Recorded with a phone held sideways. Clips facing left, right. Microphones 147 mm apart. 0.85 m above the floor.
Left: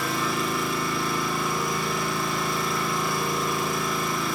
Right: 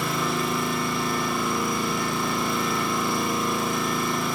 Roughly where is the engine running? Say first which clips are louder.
Right 1 dB; right.